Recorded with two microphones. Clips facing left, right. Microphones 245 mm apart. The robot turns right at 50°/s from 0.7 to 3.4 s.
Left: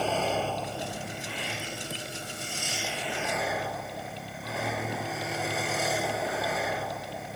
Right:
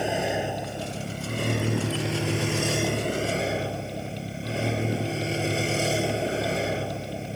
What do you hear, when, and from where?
0.0 s a vehicle: 165° right; by 7.4 s 30° right